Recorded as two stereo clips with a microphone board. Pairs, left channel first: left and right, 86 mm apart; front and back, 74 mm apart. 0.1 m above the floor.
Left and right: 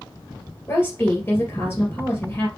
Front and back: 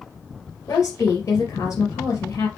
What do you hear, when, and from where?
0.7 s a woman speaking: 35° left, 2.5 m